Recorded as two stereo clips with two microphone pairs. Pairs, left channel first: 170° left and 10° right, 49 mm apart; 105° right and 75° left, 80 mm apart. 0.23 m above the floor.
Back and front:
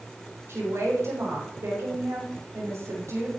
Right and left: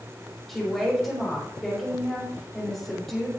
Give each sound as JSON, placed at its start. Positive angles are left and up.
{"t": 0.5, "sound": "a woman speaking", "azimuth_deg": -20, "distance_m": 6.5}